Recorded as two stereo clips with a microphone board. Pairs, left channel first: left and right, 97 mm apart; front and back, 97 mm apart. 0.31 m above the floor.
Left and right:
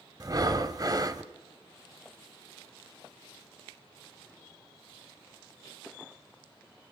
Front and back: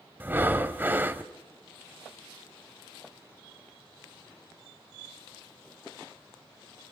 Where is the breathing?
120° right, 1.0 m.